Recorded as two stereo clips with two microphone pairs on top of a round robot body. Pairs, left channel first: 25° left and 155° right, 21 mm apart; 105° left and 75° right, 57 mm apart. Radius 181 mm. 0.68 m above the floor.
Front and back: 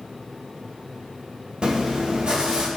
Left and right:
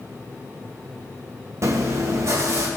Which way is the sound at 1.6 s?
110° right.